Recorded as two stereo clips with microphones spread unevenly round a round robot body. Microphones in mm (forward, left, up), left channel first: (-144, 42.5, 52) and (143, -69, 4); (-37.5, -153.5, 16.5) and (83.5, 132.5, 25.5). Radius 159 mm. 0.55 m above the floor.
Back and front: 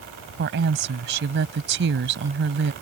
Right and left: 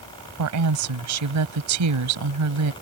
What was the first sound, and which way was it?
A woman speaking, 35° left.